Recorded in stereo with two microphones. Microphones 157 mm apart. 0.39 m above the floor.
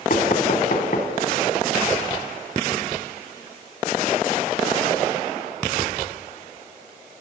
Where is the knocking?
60° left (ahead or behind), 2.5 m.